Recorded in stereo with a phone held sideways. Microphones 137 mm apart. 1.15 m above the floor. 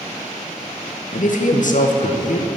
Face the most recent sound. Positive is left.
turn(degrees=65)  # may be behind; listen again after turning